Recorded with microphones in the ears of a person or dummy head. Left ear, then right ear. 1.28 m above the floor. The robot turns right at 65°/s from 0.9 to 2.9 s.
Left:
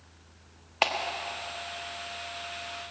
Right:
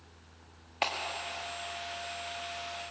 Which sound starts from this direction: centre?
A clap, at 0.8 s.